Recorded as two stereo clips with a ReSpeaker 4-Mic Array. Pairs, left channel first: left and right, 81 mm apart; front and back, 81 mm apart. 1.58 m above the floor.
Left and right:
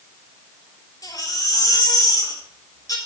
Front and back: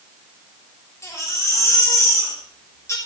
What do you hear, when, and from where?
1.0 s a baby crying: 50° left, 5 m